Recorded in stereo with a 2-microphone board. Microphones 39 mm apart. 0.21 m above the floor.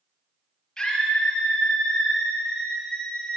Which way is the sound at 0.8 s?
20° left (ahead or behind).